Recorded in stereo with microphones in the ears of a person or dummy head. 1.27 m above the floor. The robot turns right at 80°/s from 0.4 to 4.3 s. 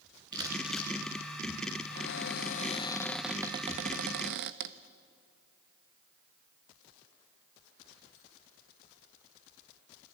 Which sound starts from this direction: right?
Crumpling, at 0.3 s.